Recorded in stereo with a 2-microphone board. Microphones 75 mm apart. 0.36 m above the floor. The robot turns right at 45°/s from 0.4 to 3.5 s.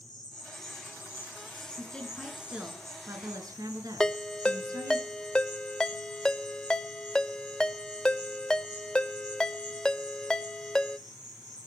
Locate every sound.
0.0 s an insect: 105° left, 8.5 m; by 11.7 s 115° right, 8.5 m
1.8 s a woman speaking: 160° left, 4 m; by 5.0 s 125° right, 4 m
4.0 s a ringtone: 10° left (ahead or behind), 0.6 m